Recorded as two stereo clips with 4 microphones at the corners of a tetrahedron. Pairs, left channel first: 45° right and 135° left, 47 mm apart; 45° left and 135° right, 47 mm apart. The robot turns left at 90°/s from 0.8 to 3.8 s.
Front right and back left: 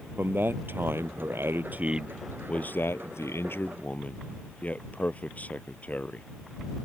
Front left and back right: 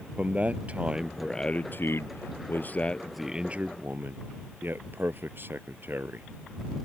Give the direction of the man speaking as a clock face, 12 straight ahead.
6 o'clock.